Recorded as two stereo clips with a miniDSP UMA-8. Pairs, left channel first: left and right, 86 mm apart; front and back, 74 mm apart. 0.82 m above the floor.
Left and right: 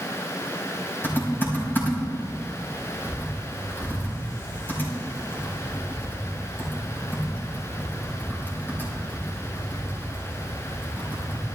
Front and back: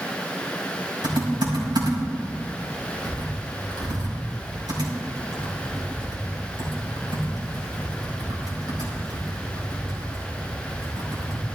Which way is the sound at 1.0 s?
155° left.